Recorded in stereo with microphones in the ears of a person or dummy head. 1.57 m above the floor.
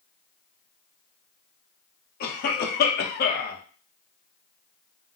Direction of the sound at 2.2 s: 50° left (ahead or behind).